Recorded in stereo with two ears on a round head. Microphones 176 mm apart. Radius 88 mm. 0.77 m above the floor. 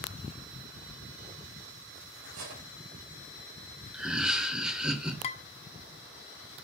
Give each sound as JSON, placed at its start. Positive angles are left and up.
{"t": 2.2, "sound": "cutlery clinking", "side_deg": -85, "distance_m": 2.5}
{"t": 3.9, "sound": "laughter", "side_deg": -5, "distance_m": 1.1}
{"t": 5.2, "sound": "dishes clattering", "side_deg": 35, "distance_m": 0.5}